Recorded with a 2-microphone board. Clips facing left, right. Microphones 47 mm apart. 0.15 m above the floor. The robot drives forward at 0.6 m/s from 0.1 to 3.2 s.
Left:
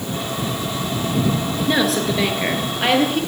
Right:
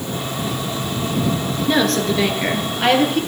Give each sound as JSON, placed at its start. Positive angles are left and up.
{"t": 1.7, "sound": "a woman speaking", "side_deg": 5, "distance_m": 1.9}